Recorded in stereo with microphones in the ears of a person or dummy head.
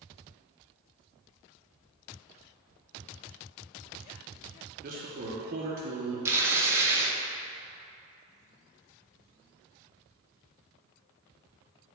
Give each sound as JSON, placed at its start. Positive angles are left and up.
{"t": 4.8, "sound": "a man speaking", "side_deg": -45, "distance_m": 0.8}
{"t": 6.2, "sound": "tearing paper", "side_deg": -15, "distance_m": 0.6}